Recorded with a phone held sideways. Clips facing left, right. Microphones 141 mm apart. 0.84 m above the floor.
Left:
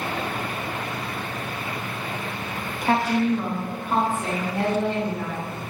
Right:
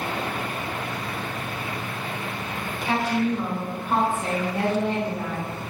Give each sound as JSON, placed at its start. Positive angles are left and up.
{"t": 2.8, "sound": "a woman speaking", "side_deg": 50, "distance_m": 0.5}